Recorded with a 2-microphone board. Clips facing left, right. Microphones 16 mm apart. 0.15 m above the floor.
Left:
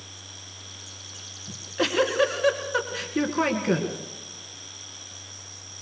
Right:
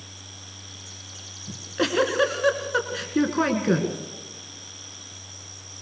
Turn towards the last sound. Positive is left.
turn(degrees=-10)  # may be behind; listen again after turning